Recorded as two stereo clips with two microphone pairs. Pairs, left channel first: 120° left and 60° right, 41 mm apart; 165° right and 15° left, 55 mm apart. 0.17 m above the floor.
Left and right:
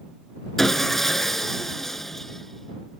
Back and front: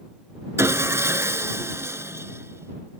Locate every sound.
0.6 s sawing: 40° left